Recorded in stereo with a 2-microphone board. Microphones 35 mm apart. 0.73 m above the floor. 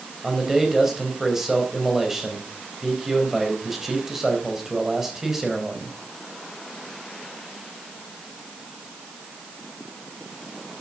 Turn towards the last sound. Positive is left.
turn(degrees=-10)  # may be behind; listen again after turning